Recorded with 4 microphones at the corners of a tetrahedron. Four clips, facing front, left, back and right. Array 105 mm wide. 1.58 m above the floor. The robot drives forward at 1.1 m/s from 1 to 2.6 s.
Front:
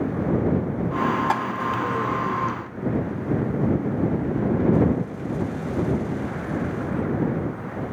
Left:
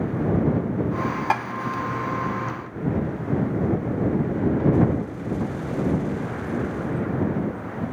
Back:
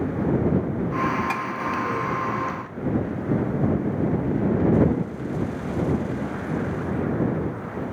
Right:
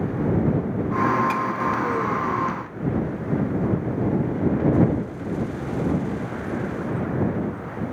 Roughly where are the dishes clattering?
Ahead left.